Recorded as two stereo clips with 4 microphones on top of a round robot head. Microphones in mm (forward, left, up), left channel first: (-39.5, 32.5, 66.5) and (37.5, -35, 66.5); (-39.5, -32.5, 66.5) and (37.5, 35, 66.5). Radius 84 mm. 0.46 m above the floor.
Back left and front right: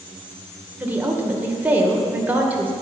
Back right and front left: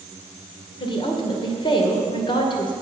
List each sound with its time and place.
0.8 s a woman speaking: 110° right, 2 m